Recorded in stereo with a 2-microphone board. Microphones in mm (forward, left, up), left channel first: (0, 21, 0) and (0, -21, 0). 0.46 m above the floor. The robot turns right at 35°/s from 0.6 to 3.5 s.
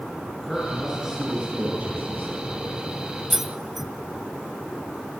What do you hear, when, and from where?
0.4 s a man speaking: straight behind, 6.5 m; by 2.4 s 120° right, 6.5 m
3.3 s keys jangling: 10° right (ahead or behind), 0.6 m; by 3.9 s 5° right (ahead or behind), 0.6 m